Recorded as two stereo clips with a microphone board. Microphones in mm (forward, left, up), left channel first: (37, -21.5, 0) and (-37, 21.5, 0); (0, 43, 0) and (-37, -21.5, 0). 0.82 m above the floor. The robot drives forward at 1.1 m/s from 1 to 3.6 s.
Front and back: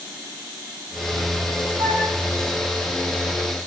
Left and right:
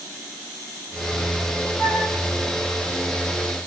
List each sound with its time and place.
1.8 s a flute: 130° left, 7.5 m